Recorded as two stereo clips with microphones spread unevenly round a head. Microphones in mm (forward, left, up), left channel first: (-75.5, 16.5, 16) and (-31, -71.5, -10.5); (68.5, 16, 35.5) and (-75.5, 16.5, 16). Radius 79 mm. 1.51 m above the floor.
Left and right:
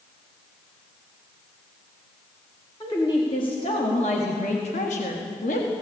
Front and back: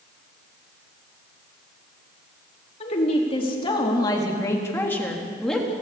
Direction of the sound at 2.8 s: 50° left.